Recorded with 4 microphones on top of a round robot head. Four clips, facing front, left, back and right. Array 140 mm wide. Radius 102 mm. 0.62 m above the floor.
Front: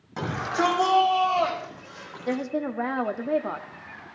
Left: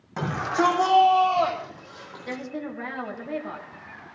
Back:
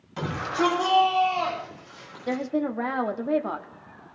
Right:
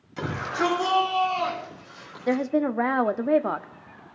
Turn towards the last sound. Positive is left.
turn(degrees=-95)